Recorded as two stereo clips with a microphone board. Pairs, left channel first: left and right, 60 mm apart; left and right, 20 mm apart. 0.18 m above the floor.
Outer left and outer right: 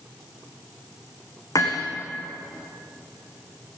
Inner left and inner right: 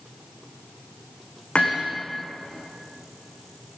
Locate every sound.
1.6 s hammering: 80° left, 7 m